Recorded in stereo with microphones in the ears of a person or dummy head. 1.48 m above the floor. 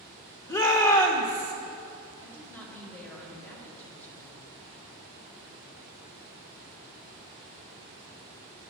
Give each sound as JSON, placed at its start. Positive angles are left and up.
{"t": 0.5, "sound": "a shout", "side_deg": 20, "distance_m": 0.7}
{"t": 2.2, "sound": "a woman speaking", "side_deg": 10, "distance_m": 1.6}